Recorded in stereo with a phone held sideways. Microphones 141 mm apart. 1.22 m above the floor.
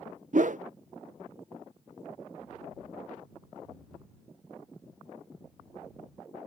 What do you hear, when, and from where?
0.3 s a whoosh: 60° right (ahead or behind)